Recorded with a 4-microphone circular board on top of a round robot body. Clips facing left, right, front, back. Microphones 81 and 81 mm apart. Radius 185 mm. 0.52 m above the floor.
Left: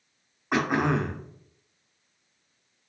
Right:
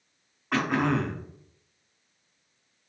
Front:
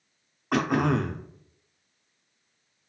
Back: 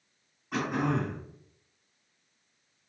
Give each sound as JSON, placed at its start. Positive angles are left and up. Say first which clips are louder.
{"t": 0.5, "sound": "throat clearing", "louder": "left 1 dB, front 5 dB", "azimuth_deg": 20, "distance_m": 0.5}